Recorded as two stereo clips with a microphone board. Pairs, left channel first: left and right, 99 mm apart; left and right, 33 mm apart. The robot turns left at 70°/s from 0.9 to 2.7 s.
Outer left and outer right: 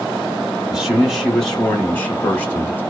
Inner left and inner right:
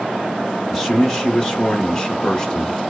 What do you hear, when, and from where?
0.7 s a man speaking: 5° right (ahead or behind), 1.4 m; by 2.8 s 20° left (ahead or behind), 1.4 m